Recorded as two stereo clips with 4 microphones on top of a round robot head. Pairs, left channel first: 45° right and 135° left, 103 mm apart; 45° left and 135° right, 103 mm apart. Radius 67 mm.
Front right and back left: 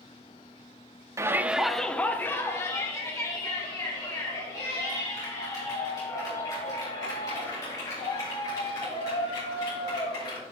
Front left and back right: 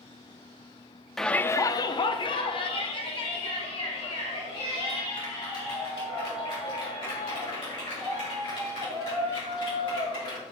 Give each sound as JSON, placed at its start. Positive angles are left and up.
{"t": 1.2, "sound": "a shout", "azimuth_deg": 130, "distance_m": 0.7}